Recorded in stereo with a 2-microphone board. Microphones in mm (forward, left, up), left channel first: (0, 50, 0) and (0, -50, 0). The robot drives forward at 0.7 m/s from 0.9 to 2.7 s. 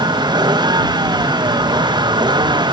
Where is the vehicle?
45° right (ahead or behind).